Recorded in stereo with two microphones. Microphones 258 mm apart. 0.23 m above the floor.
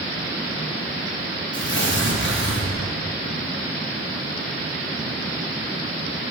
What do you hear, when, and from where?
1.5 s tearing paper: 50° left (ahead or behind), 4 m